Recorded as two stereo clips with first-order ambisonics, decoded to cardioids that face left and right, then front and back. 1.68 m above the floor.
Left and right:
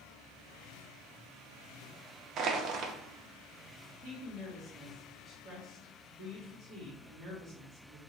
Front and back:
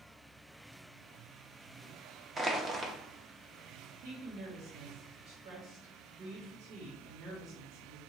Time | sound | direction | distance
2.4 | crushing | 110° right | 0.6 m
4.0 | a woman speaking | 170° left | 2.5 m